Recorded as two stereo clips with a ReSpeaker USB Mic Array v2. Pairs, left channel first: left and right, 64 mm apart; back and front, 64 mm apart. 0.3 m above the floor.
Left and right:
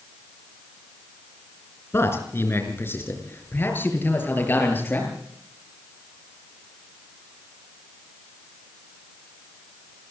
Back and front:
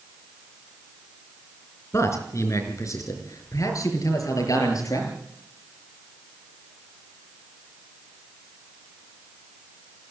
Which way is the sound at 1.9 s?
140° left.